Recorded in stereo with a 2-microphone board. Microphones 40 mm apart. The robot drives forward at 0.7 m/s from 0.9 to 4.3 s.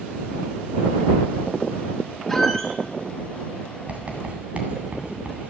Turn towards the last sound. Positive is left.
turn(degrees=-30)  # may be behind; listen again after turning